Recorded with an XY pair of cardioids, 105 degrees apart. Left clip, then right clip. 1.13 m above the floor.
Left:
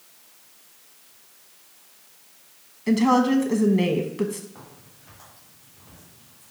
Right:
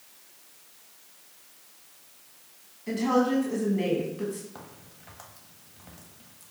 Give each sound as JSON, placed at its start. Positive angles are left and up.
{"t": 2.9, "sound": "a woman speaking", "azimuth_deg": 70, "distance_m": 0.8}
{"t": 4.5, "sound": "a crack", "azimuth_deg": -65, "distance_m": 1.5}